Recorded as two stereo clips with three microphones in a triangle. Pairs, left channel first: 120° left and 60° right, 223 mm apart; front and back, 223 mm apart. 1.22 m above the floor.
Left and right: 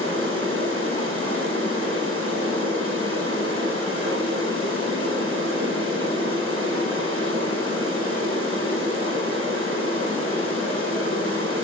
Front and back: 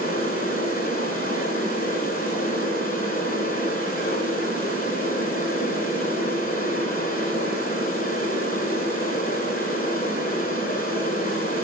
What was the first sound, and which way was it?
Running water, 50° right.